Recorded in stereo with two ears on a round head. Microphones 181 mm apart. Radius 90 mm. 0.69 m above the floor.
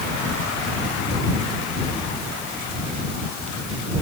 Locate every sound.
Only background noise.